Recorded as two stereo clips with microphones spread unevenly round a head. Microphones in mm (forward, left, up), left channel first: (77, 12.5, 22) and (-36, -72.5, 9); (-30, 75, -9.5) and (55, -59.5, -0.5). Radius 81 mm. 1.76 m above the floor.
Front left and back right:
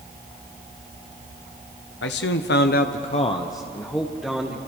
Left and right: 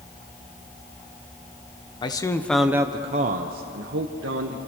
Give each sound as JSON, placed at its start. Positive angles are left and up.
{"t": 2.0, "sound": "a man speaking", "azimuth_deg": 60, "distance_m": 1.5}